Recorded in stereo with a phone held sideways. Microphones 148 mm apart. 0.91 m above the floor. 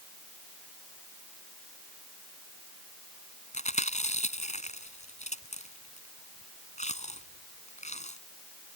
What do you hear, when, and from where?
3.5 s chewing: 50° left (ahead or behind)